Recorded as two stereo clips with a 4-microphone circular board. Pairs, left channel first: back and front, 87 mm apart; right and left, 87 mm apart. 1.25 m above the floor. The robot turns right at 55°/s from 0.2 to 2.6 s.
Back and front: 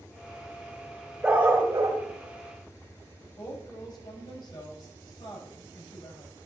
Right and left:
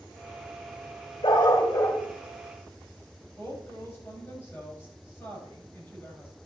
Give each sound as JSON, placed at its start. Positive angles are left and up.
{"t": 1.2, "sound": "a dog barking", "azimuth_deg": -80, "distance_m": 3.0}
{"t": 3.4, "sound": "a woman speaking", "azimuth_deg": -150, "distance_m": 6.5}